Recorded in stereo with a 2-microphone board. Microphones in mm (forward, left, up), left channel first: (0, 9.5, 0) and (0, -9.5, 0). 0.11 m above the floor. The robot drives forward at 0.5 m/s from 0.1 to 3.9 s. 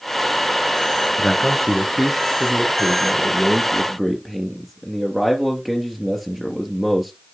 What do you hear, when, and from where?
1.2 s a man speaking: 15° right (ahead or behind), 1.7 m; by 7.1 s 10° right (ahead or behind), 2.5 m